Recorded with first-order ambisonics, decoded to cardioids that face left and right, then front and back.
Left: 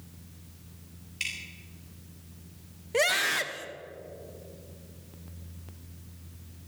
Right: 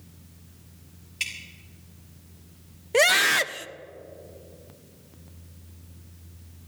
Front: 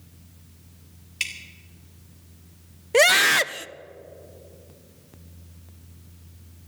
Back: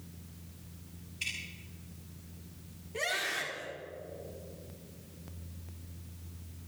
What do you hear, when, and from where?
1.2 s dripping: 10° right, 3 m
2.9 s a scream: 25° right, 0.5 m